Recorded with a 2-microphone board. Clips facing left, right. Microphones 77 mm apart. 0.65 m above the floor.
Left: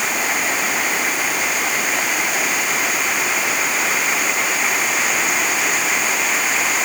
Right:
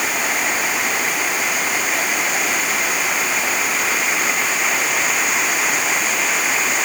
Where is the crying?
I don't hear crying.